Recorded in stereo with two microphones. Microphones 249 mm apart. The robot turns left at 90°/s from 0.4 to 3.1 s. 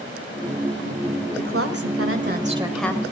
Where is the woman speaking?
50° right, 1.7 m; by 3.0 s 160° left, 1.7 m.